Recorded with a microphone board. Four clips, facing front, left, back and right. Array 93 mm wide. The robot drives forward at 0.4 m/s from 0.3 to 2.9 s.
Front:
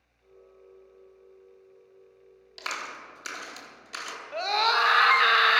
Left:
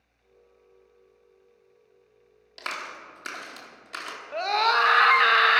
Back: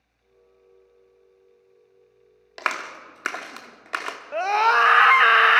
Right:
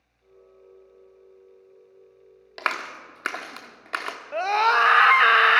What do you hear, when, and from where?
2.6 s a clap: 135° right, 1.1 m; by 4.2 s 140° right, 1.2 m
4.3 s a scream: 150° right, 1.0 m